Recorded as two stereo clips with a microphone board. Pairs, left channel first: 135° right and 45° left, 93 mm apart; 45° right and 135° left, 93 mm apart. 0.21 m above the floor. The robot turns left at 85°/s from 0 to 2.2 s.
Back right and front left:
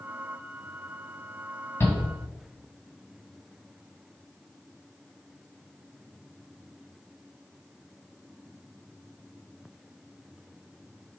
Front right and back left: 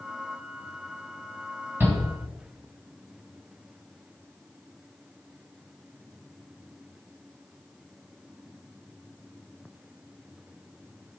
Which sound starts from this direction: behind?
A shout, at 1.8 s.